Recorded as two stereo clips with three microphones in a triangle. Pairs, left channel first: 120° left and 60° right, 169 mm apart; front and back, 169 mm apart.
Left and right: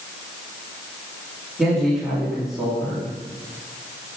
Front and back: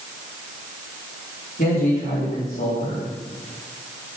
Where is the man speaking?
30° left, 3.5 m.